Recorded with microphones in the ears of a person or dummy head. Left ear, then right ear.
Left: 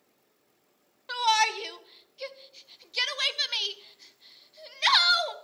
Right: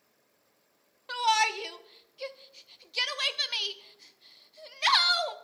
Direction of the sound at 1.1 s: Centre (ahead or behind).